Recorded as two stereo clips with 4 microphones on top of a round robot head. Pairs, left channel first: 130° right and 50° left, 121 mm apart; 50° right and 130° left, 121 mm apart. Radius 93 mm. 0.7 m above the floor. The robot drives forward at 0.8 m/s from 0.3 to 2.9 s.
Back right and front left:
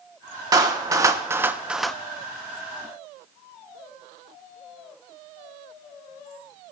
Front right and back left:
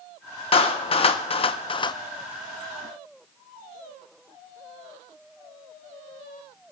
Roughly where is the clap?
Ahead.